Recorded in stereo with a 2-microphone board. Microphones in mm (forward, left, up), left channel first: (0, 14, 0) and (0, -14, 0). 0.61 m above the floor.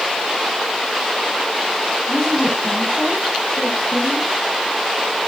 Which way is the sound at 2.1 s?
20° left (ahead or behind).